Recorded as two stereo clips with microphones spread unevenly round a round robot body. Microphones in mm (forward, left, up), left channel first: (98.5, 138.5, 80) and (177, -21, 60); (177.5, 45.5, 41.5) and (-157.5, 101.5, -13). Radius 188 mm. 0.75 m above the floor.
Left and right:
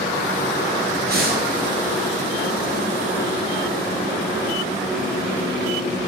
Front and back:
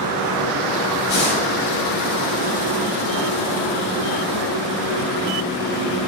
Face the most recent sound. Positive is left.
turn(degrees=-30)